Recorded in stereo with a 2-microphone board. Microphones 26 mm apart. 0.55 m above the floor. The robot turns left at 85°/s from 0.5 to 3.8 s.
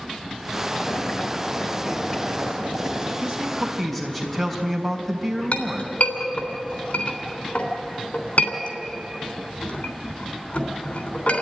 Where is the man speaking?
135° right, 4 m; by 5.9 s 175° left, 4 m.